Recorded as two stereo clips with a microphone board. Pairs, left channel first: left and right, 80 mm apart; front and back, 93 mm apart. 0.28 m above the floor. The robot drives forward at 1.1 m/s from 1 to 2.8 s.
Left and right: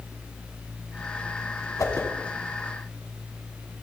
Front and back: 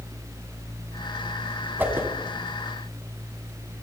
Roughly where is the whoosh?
Behind left.